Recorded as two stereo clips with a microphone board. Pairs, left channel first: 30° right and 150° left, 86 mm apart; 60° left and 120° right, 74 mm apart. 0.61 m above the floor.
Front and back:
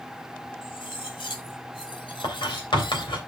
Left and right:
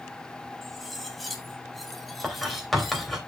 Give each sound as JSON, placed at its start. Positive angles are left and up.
{"t": 0.6, "sound": "cutlery clinking", "azimuth_deg": -30, "distance_m": 2.0}
{"t": 2.2, "sound": "writing", "azimuth_deg": -25, "distance_m": 3.0}